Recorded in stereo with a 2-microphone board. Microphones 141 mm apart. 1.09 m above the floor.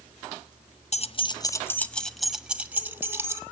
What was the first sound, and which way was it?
Keys jangling, 50° left (ahead or behind).